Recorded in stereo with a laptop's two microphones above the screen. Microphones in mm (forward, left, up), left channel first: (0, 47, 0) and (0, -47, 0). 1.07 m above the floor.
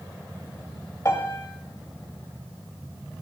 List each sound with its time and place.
1.1 s a piano: 35° left (ahead or behind), 6.5 m